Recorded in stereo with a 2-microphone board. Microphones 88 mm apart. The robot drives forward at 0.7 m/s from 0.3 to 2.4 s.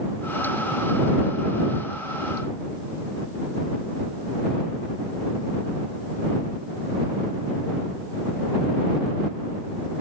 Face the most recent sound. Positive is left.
No sound to turn to.